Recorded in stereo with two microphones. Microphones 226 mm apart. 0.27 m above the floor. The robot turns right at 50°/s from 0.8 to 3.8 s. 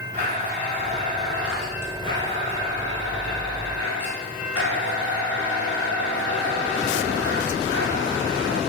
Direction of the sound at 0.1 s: 40° right.